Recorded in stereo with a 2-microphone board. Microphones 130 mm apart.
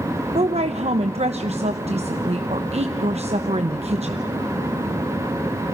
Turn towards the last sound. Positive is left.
turn(degrees=-60)  # may be behind; listen again after turning